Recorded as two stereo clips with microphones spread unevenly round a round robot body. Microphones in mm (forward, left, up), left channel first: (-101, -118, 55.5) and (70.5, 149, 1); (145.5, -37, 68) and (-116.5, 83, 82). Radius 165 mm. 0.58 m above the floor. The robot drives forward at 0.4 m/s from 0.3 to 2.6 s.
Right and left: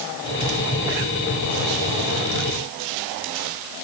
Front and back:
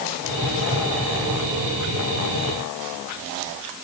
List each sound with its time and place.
Only background noise.